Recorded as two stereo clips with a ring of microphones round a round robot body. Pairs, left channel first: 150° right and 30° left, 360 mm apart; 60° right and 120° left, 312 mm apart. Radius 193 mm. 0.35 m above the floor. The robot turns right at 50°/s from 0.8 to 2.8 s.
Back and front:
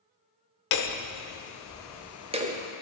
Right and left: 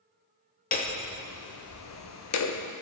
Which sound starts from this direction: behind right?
Hammering, at 0.7 s.